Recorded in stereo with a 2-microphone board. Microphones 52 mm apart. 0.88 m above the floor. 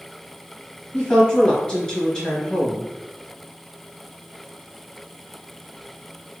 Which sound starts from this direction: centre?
A woman speaking, at 0.9 s.